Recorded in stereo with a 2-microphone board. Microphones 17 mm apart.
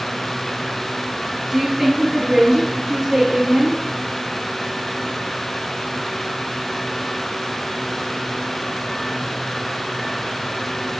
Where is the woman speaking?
30° right (ahead or behind), 1.5 m; by 3.8 s 55° right (ahead or behind), 2.5 m.